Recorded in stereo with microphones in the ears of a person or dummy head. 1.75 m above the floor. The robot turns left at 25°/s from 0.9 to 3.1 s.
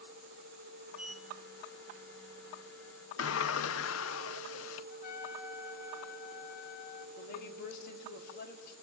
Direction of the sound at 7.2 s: 55° left (ahead or behind).